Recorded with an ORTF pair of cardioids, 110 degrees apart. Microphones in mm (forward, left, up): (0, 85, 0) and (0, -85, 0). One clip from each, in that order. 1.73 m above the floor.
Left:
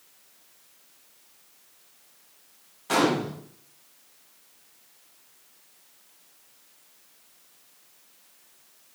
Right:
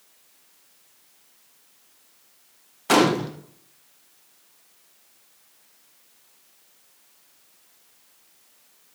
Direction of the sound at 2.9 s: 50° right.